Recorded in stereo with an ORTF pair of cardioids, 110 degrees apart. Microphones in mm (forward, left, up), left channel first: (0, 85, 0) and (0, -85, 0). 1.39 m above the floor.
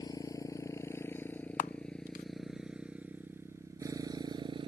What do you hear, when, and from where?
0.0 s a motorcycle: 25° left; by 4.7 s 30° right
1.6 s a camera shutter: 50° left